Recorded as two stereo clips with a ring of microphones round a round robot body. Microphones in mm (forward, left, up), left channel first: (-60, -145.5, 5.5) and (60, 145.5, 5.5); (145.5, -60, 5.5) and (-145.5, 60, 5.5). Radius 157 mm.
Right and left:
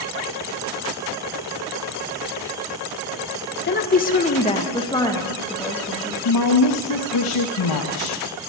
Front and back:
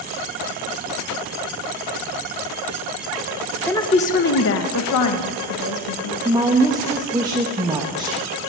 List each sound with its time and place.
3.7 s a woman speaking: 100° right, 0.8 m; by 6.2 s 25° right, 1.9 m
6.2 s a woman speaking: 125° right, 1.0 m